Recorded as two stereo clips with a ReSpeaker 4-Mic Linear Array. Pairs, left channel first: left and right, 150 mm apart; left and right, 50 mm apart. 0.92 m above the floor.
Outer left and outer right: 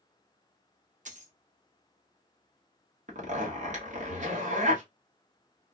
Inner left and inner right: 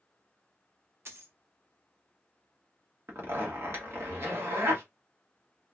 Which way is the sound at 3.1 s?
55° right (ahead or behind).